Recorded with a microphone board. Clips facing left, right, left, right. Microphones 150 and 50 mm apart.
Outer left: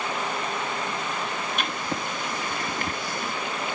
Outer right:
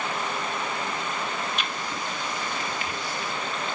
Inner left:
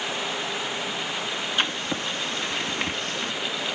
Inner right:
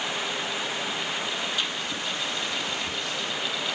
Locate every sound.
1.6 s writing: 55° left (ahead or behind), 1.3 m